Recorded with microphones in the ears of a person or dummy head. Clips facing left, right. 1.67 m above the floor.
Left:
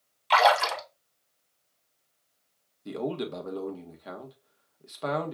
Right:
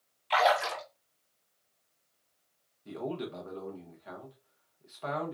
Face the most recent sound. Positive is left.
turn(degrees=60)  # may be behind; listen again after turning